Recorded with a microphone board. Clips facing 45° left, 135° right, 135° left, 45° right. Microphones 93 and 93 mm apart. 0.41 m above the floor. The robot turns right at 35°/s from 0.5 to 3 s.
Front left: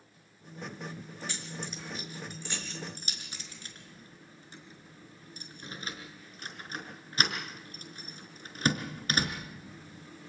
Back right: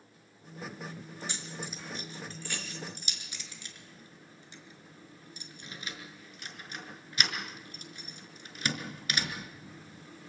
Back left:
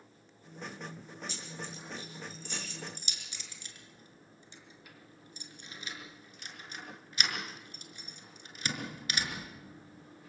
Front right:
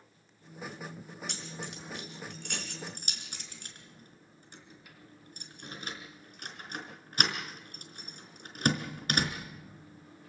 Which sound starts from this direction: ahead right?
Keys jangling, at 1.3 s.